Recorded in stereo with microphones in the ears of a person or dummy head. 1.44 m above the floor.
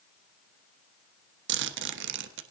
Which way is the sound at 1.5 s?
65° right (ahead or behind).